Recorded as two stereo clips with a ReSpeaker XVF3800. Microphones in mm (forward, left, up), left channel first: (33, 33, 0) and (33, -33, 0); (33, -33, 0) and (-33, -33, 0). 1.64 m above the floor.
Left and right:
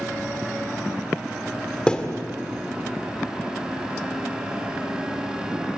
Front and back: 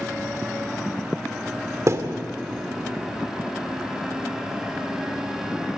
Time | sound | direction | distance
1.9 | a thud | 165° left | 1.8 m